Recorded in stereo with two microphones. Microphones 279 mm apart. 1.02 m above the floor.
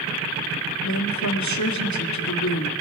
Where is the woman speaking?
85° left, 1.6 m.